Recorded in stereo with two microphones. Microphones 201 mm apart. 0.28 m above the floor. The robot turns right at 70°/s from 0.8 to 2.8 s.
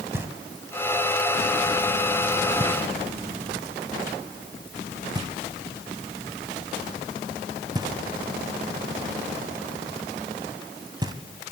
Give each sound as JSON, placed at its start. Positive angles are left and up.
{"t": 0.1, "sound": "knocking", "side_deg": -10, "distance_m": 2.0}